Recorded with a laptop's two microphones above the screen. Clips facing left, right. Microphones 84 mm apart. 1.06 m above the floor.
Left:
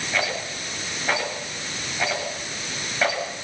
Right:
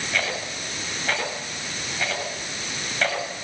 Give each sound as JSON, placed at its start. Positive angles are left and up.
{"t": 0.1, "sound": "a rattle", "side_deg": 10, "distance_m": 8.0}